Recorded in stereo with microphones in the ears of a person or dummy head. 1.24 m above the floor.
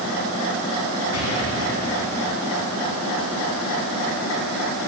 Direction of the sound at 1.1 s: 80° left.